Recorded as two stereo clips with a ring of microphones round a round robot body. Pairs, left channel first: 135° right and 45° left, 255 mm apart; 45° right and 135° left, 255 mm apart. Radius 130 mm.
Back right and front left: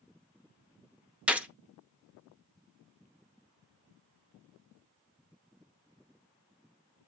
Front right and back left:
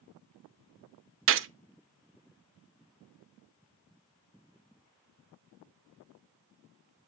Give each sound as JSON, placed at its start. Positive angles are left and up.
{"t": 1.3, "sound": "a gunshot", "azimuth_deg": 130, "distance_m": 0.9}